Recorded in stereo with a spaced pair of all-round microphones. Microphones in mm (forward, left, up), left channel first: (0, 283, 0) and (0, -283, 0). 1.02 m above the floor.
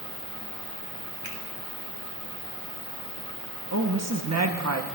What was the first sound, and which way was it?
A finger snap, 85° right.